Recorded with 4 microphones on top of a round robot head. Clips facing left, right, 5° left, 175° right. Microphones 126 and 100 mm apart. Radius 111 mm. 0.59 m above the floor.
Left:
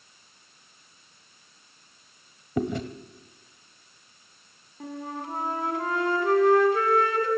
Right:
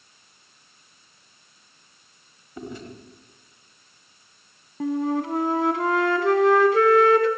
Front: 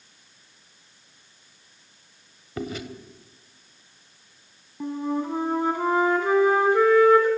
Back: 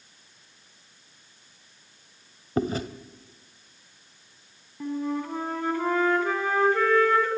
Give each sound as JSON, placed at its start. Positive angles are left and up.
{"t": 2.6, "sound": "chewing", "azimuth_deg": 130, "distance_m": 1.2}
{"t": 4.8, "sound": "a flute", "azimuth_deg": -75, "distance_m": 1.9}